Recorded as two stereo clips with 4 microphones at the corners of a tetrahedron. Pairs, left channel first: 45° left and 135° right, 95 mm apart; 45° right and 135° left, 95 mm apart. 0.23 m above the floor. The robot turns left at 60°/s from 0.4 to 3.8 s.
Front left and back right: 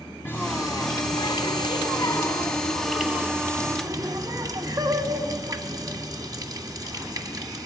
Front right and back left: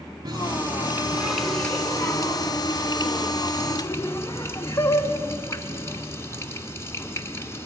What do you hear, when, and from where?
0.2 s a running tap: 105° left, 1.4 m; by 7.7 s 100° right, 1.4 m